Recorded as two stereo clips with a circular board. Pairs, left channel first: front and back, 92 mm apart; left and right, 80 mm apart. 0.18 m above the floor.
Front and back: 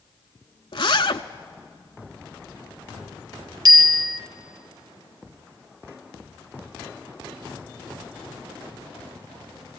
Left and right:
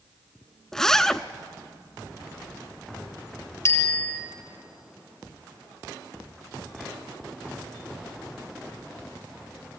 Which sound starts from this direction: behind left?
A bicycle bell, at 3.6 s.